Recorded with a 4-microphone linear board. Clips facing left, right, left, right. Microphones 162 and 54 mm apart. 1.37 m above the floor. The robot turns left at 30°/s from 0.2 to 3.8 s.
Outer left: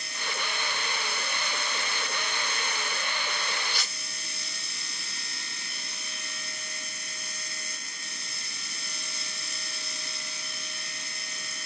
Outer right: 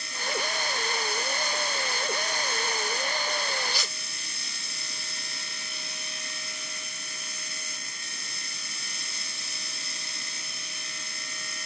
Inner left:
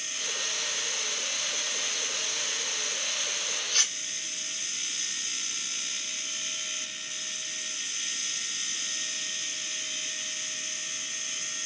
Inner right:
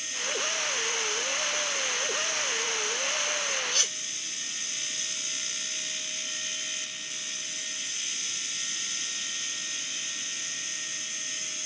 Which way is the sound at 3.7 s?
50° left (ahead or behind).